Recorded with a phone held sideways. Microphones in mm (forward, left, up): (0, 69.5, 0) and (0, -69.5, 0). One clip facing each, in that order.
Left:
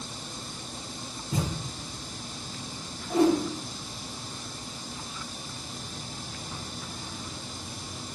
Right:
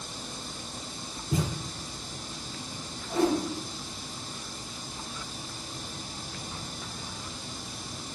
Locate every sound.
1.3 s a thud: 60° right (ahead or behind), 1.9 m
3.1 s a whoosh: 15° left (ahead or behind), 0.9 m